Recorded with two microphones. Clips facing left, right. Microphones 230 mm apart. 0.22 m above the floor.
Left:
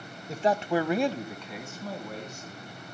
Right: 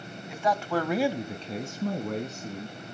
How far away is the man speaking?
About 1.2 m.